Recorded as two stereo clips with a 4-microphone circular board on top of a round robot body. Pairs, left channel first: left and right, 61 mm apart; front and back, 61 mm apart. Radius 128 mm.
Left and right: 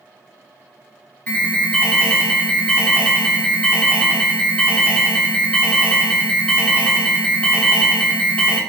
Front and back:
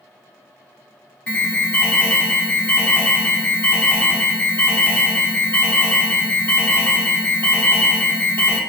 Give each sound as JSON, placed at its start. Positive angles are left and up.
{"t": 1.3, "sound": "an alarm", "azimuth_deg": 40, "distance_m": 0.8}